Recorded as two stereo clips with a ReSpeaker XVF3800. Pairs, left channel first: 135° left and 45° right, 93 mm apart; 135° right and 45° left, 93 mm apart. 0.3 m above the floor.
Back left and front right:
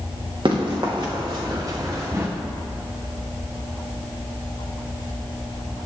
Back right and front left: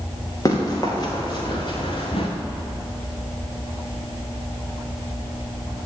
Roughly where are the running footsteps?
Right.